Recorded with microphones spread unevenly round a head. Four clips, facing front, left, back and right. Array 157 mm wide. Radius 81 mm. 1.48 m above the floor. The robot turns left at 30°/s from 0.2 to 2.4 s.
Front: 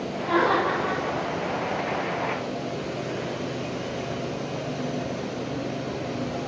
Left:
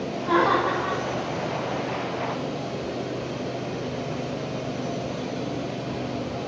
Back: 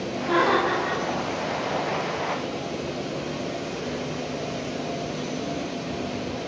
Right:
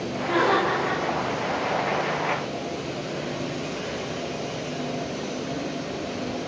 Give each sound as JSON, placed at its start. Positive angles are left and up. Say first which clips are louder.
{"t": 0.2, "sound": "laughter", "louder": "left 1 dB, back 1 dB", "azimuth_deg": 80, "distance_m": 1.1}